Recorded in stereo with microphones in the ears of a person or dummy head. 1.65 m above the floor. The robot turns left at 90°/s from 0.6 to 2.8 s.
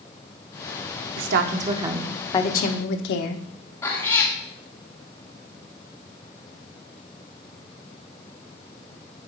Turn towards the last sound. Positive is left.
turn(degrees=15)  # may be behind; listen again after turning